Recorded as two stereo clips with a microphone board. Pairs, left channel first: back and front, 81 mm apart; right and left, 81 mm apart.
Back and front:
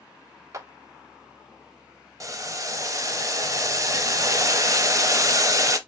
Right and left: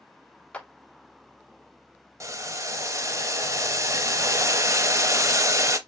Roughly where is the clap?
Ahead.